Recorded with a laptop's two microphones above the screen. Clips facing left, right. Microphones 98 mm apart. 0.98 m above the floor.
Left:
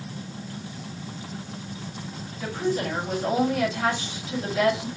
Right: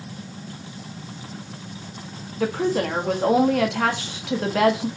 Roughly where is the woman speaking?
Right.